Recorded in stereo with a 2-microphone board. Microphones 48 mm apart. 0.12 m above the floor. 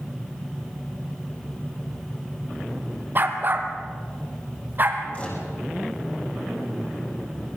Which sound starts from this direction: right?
A dog barking, at 3.1 s.